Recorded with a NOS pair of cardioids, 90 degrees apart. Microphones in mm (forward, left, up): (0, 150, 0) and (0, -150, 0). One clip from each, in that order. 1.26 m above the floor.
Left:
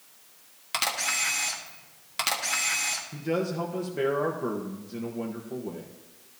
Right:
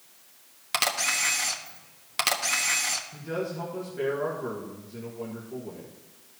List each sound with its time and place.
0.7 s a camera shutter: 20° right, 1.3 m
3.1 s a man speaking: 50° left, 1.5 m